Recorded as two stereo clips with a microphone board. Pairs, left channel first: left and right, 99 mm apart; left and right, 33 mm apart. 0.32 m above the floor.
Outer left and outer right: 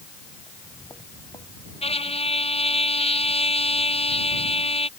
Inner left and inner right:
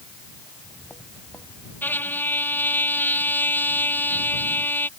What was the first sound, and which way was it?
Footsteps, 40° left (ahead or behind).